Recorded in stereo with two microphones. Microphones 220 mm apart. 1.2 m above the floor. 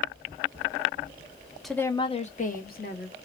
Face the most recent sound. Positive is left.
turn(degrees=50)  # may be behind; listen again after turning